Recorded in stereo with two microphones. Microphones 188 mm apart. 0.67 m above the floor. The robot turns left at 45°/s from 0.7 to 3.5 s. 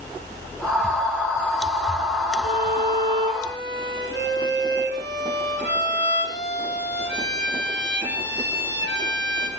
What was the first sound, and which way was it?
A violin, 50° right.